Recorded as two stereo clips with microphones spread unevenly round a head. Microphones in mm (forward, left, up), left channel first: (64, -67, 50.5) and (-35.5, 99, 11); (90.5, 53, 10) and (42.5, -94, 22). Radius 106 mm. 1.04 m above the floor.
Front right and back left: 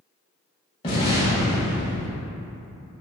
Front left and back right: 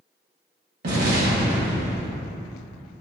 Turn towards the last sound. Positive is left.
turn(degrees=-120)